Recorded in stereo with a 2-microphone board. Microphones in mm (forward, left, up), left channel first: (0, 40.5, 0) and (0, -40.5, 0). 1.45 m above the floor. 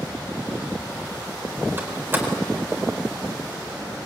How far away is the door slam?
About 4 m.